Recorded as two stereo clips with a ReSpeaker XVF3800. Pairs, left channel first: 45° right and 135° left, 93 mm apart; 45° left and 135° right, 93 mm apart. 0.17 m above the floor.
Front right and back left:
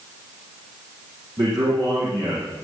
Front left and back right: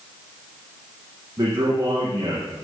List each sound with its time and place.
1.4 s a man speaking: 170° left, 6 m